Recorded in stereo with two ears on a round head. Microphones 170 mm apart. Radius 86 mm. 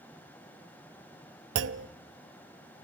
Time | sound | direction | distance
1.6 | a clunk | 65° right (ahead or behind) | 0.7 m